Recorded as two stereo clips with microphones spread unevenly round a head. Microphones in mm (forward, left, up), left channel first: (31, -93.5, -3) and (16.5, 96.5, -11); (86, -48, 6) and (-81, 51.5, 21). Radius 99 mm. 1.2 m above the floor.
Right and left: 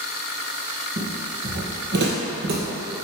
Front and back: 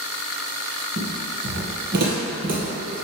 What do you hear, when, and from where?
1.0 s footsteps: 135° left, 2.5 m; by 3.0 s 110° left, 1.8 m